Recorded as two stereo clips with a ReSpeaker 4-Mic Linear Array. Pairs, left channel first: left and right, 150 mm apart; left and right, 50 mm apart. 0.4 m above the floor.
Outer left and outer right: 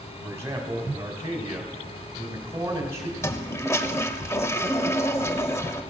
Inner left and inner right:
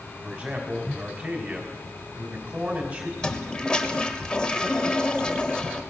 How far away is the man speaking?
About 3.5 m.